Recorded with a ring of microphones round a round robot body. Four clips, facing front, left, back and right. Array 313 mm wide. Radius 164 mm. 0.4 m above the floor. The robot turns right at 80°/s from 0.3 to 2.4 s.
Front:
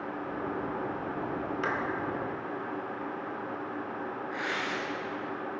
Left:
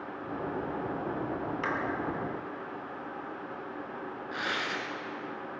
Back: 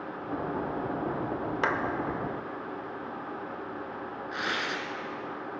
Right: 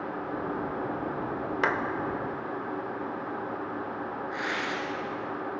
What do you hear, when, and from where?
1.6 s a clap: 125° right, 1.1 m; by 1.8 s 110° right, 1.1 m
4.3 s tearing paper: 155° left, 1.6 m